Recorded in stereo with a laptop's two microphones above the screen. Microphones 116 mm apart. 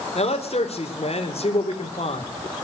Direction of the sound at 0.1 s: 65° left (ahead or behind).